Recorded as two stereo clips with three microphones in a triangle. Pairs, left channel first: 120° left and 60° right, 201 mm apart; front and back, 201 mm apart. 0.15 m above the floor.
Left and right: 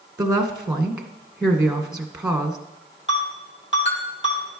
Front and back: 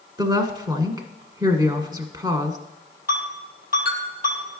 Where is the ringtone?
135° left, 3 m.